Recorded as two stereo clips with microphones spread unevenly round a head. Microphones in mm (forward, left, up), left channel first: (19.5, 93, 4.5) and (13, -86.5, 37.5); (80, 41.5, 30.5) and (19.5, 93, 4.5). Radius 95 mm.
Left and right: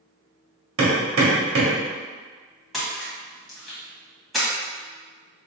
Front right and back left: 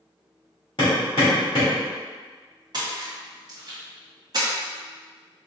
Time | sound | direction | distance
0.8 | hammering | 95° right | 1.6 m
2.7 | a splash | 175° left | 1.3 m